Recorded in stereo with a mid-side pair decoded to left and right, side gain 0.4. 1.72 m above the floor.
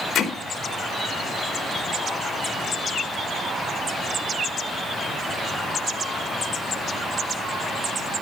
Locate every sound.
0.1 s hammering: 70° left, 4 m